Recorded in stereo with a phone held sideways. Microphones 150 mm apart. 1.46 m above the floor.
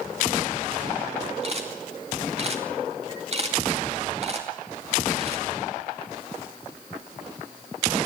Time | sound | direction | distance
1.4 | a camera shutter | 45° right (ahead or behind) | 2.5 m